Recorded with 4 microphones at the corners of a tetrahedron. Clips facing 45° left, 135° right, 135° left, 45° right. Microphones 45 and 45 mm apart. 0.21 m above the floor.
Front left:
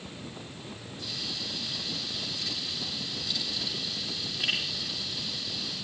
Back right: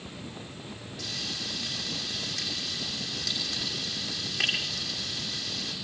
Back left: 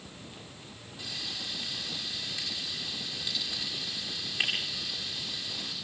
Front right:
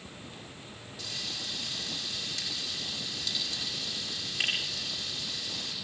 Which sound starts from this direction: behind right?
Frying, at 1.0 s.